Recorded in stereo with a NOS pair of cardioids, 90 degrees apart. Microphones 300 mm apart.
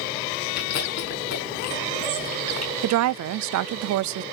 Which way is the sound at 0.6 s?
60° left.